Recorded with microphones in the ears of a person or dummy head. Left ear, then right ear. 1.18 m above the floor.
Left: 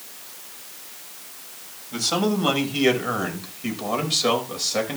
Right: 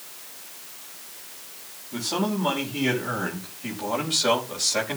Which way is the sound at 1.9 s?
55° left (ahead or behind).